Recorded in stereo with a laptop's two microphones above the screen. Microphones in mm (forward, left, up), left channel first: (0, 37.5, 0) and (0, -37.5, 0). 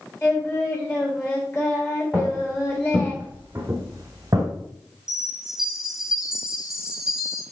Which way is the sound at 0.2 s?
30° left (ahead or behind).